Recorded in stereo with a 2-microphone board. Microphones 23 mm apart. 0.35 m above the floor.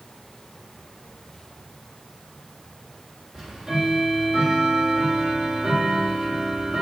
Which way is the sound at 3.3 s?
35° right (ahead or behind).